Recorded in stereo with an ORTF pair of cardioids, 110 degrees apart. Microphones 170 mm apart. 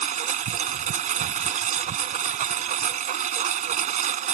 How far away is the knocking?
No knocking in this recording.